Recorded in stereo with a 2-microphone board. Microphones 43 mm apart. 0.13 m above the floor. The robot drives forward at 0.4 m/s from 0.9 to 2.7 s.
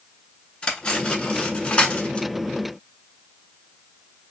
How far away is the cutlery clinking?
About 1.0 m.